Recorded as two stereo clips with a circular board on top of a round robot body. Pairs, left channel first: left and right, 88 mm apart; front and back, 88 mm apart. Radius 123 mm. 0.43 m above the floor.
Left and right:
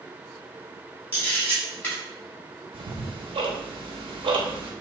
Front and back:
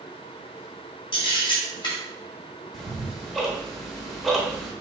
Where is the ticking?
85° right, 0.6 m.